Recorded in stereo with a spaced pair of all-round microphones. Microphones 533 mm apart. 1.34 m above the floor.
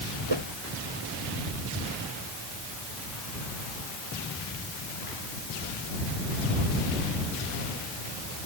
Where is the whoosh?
55° right (ahead or behind).